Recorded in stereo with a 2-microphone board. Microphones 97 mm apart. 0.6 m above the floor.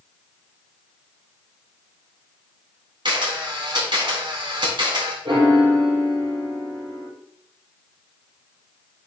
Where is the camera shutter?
60° right (ahead or behind), 3.5 m.